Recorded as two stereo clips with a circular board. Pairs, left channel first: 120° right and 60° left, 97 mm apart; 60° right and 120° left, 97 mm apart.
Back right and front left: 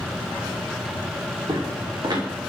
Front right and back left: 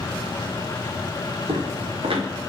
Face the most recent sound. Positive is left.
turn(degrees=105)